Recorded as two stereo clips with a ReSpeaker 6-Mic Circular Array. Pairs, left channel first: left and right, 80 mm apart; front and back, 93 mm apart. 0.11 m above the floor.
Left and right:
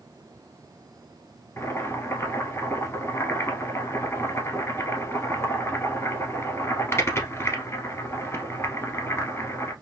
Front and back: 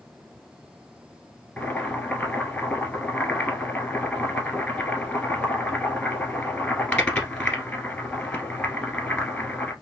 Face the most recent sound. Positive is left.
turn(degrees=70)